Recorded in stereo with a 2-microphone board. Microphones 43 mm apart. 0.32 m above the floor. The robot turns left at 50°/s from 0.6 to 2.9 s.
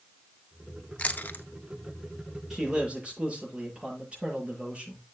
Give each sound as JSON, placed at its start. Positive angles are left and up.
{"t": 1.0, "sound": "chewing", "side_deg": 30, "distance_m": 0.7}
{"t": 2.5, "sound": "a man speaking", "side_deg": -5, "distance_m": 7.5}